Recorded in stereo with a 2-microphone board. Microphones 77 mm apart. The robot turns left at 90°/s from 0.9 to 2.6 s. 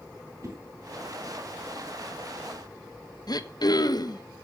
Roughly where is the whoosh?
Right.